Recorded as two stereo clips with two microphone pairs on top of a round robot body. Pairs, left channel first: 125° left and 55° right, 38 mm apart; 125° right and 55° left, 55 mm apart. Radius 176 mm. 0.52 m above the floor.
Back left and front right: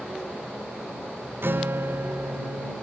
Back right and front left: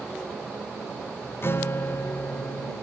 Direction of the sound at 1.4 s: 80° right.